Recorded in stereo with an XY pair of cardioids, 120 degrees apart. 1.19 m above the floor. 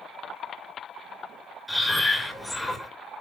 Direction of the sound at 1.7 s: 10° left.